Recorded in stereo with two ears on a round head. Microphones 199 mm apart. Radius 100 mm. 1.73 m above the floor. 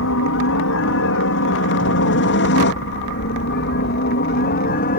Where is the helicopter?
65° left (ahead or behind); by 5.0 s 40° left (ahead or behind).